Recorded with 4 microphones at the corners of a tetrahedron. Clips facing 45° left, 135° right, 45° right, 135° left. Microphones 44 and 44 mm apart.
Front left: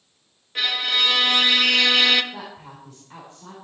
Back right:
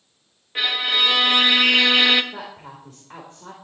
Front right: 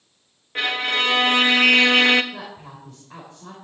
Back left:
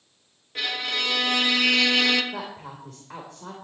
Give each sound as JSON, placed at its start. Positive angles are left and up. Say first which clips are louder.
{"t": 0.6, "sound": "a violin", "louder": "back right 1 dB, front right 6 dB", "azimuth_deg": -70, "distance_m": 1.0}
{"t": 2.3, "sound": "a woman speaking", "louder": "back right 1 dB, back left 2 dB", "azimuth_deg": 170, "distance_m": 3.5}